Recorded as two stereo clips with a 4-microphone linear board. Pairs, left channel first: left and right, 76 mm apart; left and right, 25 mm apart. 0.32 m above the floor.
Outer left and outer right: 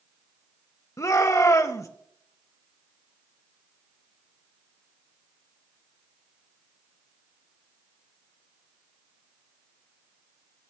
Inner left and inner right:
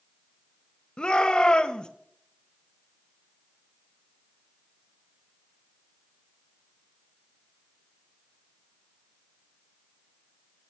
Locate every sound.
1.0 s a shout: 45° left (ahead or behind), 1.2 m